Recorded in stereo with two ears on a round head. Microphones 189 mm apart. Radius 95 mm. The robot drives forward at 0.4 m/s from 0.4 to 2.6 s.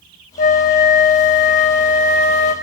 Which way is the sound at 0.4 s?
40° left (ahead or behind).